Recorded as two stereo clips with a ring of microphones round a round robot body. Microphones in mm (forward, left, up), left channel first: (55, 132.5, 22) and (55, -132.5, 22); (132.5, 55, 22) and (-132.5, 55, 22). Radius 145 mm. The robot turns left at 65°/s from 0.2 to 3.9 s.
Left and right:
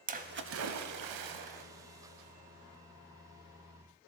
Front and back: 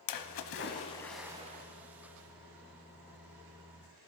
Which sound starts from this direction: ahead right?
A splash, at 0.1 s.